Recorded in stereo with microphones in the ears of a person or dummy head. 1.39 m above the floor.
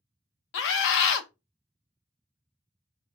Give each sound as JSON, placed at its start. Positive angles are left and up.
{"t": 0.5, "sound": "a scream", "side_deg": 60, "distance_m": 0.8}